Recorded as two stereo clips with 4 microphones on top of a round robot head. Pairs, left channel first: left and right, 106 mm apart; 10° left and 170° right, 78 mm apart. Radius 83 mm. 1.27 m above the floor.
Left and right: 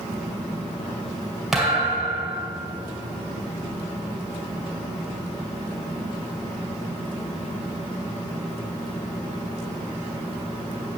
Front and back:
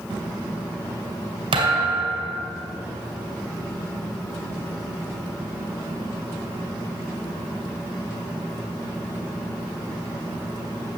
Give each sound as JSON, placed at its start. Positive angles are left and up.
{"t": 1.5, "sound": "a thud", "azimuth_deg": 180, "distance_m": 2.0}